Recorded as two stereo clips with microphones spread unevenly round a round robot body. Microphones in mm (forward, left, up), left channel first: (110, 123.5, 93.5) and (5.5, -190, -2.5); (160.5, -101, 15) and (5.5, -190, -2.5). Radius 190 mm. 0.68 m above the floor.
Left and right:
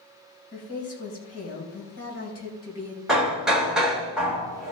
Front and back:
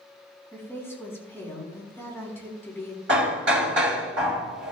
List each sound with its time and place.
0.5 s a woman speaking: 130° left, 4 m
3.1 s hammering: 165° left, 1.3 m